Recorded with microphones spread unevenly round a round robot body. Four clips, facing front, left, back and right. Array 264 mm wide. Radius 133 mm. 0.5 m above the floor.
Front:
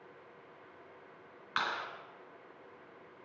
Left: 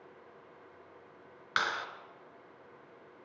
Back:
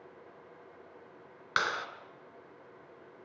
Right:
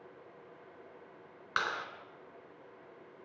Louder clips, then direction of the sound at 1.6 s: Left 2 dB, back 4 dB; 170° right.